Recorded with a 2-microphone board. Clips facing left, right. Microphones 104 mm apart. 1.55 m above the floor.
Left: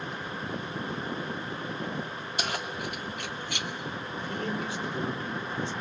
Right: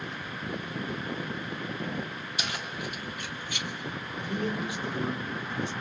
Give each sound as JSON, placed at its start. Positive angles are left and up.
{"t": 2.4, "sound": "keys jangling", "side_deg": 45, "distance_m": 2.0}
{"t": 4.2, "sound": "a man speaking", "side_deg": -15, "distance_m": 4.5}